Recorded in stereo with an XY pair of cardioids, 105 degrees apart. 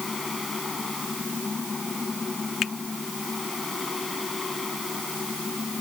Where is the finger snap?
60° left.